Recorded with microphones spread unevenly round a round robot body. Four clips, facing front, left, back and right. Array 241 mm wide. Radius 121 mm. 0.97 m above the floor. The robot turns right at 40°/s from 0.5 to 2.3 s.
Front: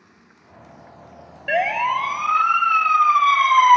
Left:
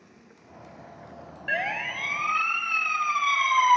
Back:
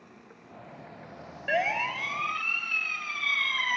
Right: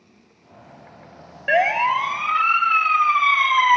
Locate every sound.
0.0 s running water: 155° left; by 3.8 s 135° right
1.5 s a siren: 65° right; by 3.8 s 15° right